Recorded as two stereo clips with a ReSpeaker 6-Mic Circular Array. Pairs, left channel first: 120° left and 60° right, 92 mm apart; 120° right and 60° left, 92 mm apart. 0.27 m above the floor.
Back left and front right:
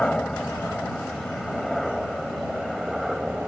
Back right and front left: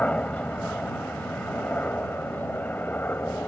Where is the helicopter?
175° right; by 3.5 s 135° right.